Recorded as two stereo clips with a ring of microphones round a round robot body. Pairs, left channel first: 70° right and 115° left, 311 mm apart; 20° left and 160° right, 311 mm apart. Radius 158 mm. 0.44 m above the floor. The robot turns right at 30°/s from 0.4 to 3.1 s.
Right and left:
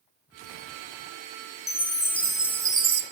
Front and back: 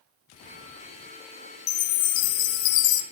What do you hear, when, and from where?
1.7 s a chime: 5° left, 0.9 m; by 3.0 s 45° left, 0.9 m